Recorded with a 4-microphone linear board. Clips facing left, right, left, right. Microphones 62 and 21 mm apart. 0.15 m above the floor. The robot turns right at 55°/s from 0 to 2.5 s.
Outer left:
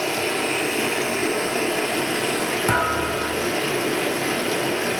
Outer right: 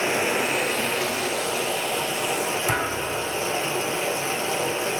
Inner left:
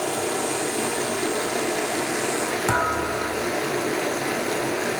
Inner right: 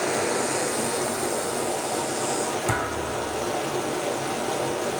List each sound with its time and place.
0.0 s running water: 30° right, 1.7 m; by 5.0 s 105° left, 1.7 m
2.7 s a thud: 55° left (ahead or behind), 2 m